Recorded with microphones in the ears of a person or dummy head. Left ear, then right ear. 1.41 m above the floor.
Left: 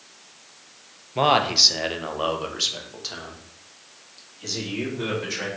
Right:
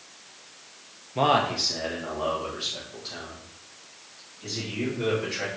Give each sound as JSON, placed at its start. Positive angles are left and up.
{"t": 1.1, "sound": "a man speaking", "side_deg": 5, "distance_m": 0.5}